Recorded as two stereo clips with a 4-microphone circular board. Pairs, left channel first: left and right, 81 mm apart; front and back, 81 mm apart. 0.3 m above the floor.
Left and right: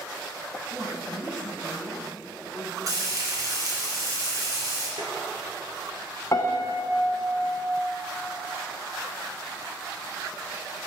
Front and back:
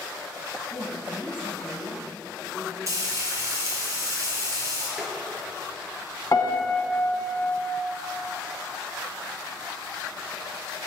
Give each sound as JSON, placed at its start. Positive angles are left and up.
{"t": 0.7, "sound": "a woman speaking", "azimuth_deg": -80, "distance_m": 1.5}
{"t": 2.9, "sound": "frying", "azimuth_deg": -130, "distance_m": 3.0}
{"t": 5.0, "sound": "tapping", "azimuth_deg": -95, "distance_m": 1.8}
{"t": 6.3, "sound": "a piano", "azimuth_deg": 45, "distance_m": 1.0}